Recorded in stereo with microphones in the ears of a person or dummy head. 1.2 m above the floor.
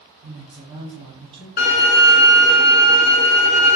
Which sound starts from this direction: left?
A violin, at 1.6 s.